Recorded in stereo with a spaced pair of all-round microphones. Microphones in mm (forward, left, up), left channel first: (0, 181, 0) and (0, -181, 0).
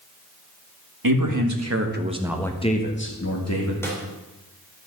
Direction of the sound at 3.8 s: 5° left (ahead or behind).